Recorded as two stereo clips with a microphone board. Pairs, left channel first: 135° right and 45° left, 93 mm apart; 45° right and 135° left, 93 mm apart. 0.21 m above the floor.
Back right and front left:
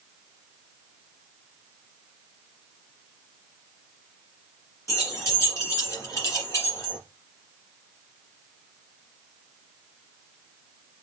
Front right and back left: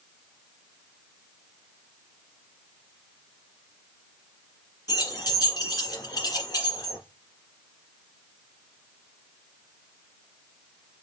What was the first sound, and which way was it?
Keys jangling, 80° right.